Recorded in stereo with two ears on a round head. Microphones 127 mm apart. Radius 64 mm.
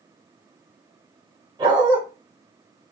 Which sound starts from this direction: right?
A dog barking, at 1.6 s.